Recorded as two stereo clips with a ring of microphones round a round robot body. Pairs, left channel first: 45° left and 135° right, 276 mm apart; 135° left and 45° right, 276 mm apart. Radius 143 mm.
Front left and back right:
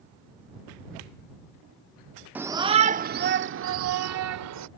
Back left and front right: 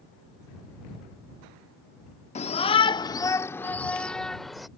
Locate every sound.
2.4 s a shout: 150° left; by 4.7 s 135° right